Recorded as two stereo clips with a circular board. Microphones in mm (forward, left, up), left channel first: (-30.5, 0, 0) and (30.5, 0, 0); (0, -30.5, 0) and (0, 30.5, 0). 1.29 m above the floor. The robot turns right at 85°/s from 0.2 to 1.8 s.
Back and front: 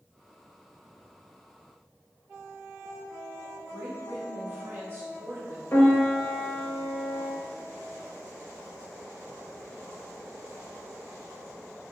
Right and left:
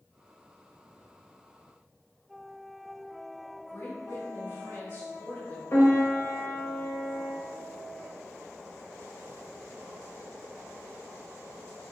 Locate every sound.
3.7 s a woman speaking: 50° right, 1.3 m
5.7 s a piano: 130° right, 1.1 m